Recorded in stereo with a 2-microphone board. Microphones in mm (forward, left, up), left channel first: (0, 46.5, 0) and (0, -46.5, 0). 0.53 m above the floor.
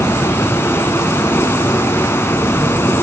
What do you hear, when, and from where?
0.0 s running water: 25° left (ahead or behind), 1.0 m